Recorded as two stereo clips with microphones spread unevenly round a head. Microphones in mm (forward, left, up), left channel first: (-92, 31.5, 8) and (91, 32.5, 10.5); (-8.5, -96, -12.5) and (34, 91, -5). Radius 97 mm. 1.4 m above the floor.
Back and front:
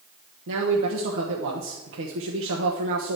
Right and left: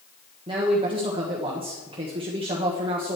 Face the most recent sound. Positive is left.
turn(degrees=15)